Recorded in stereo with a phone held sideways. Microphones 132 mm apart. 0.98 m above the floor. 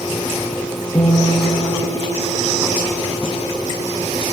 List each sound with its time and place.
0.9 s a guitar: 35° left (ahead or behind), 4 m